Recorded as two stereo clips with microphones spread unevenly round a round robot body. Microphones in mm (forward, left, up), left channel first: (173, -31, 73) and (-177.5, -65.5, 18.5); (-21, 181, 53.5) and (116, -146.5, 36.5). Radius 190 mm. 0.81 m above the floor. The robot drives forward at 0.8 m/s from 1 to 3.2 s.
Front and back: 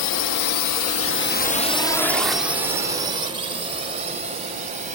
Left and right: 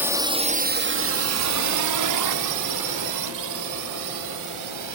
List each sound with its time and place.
0.0 s a drone: 15° left; by 5.0 s 105° right